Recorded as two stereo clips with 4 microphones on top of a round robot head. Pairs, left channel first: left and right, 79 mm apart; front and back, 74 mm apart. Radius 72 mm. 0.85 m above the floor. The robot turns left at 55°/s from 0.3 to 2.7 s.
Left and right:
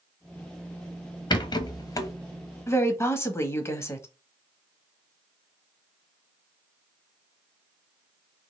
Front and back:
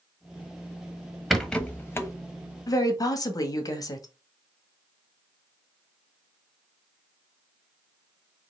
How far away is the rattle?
About 1.1 m.